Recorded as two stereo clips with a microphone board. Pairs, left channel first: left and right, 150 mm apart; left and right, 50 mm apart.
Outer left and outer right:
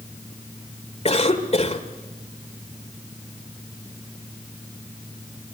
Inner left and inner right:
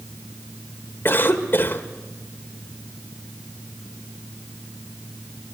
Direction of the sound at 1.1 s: 45° left (ahead or behind).